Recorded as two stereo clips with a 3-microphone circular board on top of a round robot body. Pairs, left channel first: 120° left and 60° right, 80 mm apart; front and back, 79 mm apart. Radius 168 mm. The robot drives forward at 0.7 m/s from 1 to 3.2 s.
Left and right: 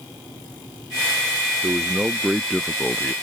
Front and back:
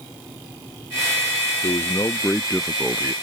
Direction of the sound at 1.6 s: Straight ahead.